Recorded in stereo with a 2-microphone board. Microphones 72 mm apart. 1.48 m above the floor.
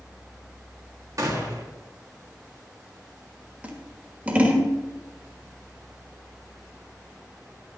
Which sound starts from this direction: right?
A gunshot, at 1.2 s.